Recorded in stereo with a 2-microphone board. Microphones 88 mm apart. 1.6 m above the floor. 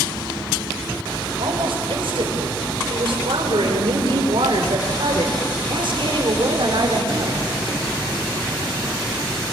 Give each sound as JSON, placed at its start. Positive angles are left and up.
{"t": 1.4, "sound": "a woman speaking", "side_deg": -85, "distance_m": 6.5}